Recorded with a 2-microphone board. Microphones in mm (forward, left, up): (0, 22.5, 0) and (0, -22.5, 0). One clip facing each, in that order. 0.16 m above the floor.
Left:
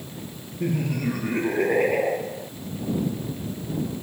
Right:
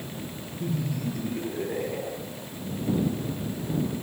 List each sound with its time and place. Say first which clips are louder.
0.6 s laughter: left 5 dB; 60° left (ahead or behind); by 2.5 s 65° left (ahead or behind)